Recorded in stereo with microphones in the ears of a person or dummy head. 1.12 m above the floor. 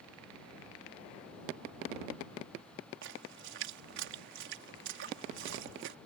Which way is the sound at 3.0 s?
65° right (ahead or behind).